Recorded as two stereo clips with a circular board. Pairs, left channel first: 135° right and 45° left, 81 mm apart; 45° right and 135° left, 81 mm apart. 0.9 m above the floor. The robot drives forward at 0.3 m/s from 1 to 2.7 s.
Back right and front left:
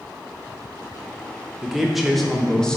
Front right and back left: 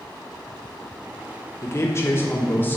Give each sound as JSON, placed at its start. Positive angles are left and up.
{"t": 1.6, "sound": "a man speaking", "azimuth_deg": -35, "distance_m": 1.0}